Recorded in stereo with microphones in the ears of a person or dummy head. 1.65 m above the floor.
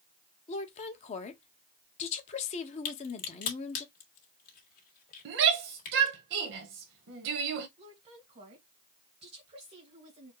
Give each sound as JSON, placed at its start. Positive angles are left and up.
{"t": 0.5, "sound": "a woman speaking", "side_deg": 35, "distance_m": 1.1}
{"t": 2.9, "sound": "a crack", "side_deg": 50, "distance_m": 2.0}
{"t": 5.2, "sound": "a shout", "side_deg": -60, "distance_m": 1.2}
{"t": 7.8, "sound": "a woman speaking", "side_deg": -30, "distance_m": 2.0}